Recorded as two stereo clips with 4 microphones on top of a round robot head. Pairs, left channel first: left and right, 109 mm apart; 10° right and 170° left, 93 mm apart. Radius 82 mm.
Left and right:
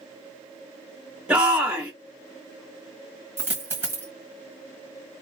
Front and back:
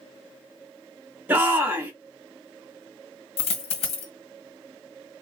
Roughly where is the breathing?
I don't hear breathing.